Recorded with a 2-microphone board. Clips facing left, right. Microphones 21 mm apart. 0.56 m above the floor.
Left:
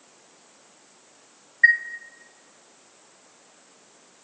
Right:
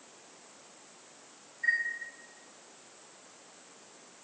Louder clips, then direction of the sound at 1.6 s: Left 12 dB; 65° left (ahead or behind).